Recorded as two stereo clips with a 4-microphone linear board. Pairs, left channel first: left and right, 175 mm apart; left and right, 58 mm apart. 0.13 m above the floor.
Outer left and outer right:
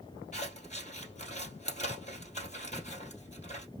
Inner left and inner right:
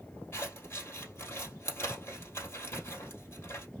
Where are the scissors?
40° left (ahead or behind), 2.5 m.